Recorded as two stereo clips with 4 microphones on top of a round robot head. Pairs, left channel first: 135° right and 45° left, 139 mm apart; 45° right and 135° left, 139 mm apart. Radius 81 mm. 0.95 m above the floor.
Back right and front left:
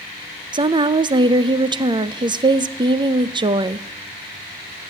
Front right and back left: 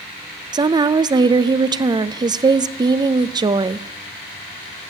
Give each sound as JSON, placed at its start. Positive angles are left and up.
{"t": 0.5, "sound": "a woman speaking", "azimuth_deg": 85, "distance_m": 0.6}